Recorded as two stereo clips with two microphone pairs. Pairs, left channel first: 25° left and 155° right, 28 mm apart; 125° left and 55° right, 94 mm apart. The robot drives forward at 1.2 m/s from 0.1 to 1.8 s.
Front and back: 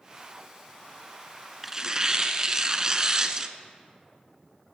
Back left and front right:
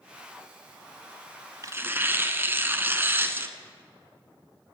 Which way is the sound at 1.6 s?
65° right.